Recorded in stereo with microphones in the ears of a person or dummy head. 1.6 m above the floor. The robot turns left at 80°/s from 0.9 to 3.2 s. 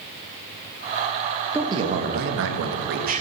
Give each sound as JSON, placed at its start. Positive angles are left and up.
{"t": 1.5, "sound": "a man speaking", "azimuth_deg": -10, "distance_m": 1.7}